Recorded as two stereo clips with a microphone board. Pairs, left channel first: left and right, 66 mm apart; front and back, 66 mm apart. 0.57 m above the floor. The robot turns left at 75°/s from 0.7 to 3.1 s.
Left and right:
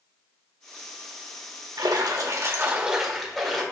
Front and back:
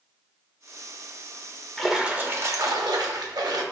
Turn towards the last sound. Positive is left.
turn(degrees=175)